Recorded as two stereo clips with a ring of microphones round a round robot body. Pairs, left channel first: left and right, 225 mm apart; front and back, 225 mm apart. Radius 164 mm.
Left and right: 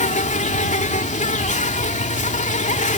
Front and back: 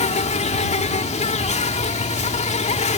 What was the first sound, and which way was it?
An insect, 45° left.